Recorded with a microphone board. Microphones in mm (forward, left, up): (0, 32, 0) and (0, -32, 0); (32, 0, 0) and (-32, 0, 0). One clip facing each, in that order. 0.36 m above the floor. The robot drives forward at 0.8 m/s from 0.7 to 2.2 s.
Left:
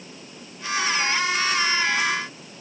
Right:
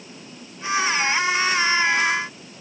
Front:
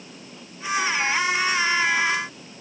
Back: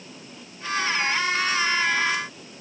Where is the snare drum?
I don't hear a snare drum.